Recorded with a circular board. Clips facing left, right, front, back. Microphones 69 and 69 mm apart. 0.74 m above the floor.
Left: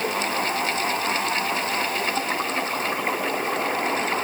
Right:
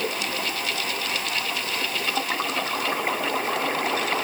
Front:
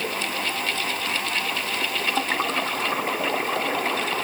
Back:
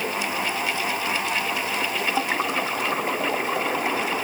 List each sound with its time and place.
Only background noise.